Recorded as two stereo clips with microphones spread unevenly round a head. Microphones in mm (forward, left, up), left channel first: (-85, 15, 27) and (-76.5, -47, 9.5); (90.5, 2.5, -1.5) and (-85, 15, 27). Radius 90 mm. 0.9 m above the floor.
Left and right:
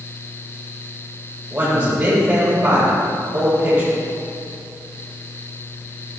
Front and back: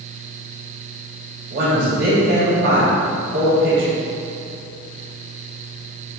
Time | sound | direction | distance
1.5 | a man speaking | 155° right | 3.5 m